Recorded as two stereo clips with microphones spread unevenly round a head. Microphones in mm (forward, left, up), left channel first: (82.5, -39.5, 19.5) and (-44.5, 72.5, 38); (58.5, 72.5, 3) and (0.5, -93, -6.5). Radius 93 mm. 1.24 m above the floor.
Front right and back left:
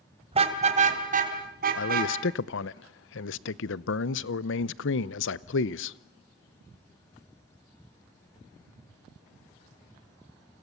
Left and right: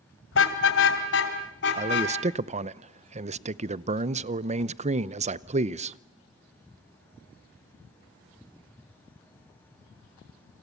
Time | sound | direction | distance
0.3 | a car horn | 85° left | 2.5 m
1.8 | a man speaking | 55° right | 0.7 m